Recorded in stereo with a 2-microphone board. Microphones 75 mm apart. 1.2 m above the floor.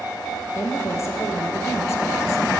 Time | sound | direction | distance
0.6 | a woman speaking | 35° left (ahead or behind) | 1.2 m